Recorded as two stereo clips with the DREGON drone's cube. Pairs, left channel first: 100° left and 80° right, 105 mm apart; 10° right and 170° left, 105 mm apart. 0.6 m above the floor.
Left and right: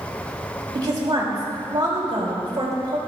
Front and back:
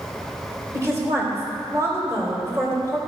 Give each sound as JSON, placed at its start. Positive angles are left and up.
{"t": 0.7, "sound": "a woman speaking", "azimuth_deg": -130, "distance_m": 3.0}